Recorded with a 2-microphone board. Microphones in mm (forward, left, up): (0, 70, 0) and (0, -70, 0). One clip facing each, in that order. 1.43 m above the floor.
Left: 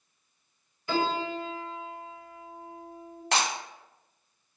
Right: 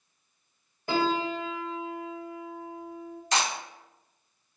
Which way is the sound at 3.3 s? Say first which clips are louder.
Even; 60° left (ahead or behind).